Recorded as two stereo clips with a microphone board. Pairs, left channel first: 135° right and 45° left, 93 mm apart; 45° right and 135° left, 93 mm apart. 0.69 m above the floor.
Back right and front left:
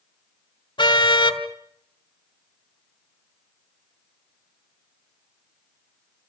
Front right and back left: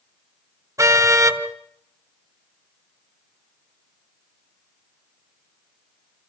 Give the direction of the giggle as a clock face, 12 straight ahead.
I don't hear a giggle.